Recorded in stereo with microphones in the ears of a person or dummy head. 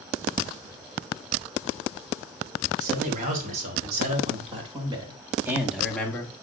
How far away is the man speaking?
About 3.5 m.